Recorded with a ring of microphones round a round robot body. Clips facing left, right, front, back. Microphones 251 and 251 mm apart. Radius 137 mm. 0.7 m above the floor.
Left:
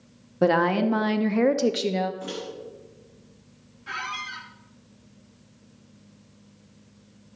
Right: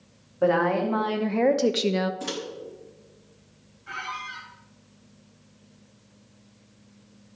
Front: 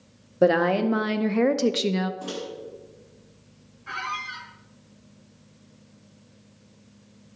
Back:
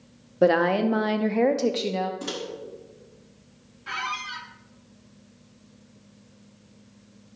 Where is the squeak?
140° left, 1.5 m.